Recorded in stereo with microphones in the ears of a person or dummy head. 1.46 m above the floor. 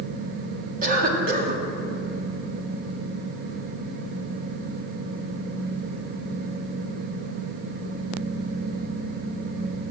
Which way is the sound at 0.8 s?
55° right (ahead or behind).